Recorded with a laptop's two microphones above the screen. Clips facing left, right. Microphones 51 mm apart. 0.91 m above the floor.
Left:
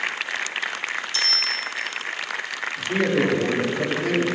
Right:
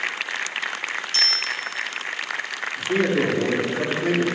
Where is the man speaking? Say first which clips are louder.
Right 1 dB; 25° right (ahead or behind), 2 m.